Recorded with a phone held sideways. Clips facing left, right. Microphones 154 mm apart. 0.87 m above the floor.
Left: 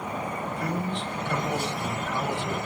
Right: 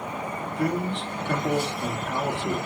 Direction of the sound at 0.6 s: 70° right (ahead or behind).